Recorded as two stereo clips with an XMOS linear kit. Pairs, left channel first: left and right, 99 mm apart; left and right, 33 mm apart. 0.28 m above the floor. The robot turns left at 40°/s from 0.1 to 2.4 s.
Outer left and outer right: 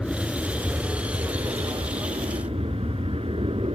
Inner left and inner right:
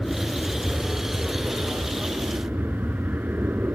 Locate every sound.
0.0 s an aircraft: 5° left; by 3.8 s 90° right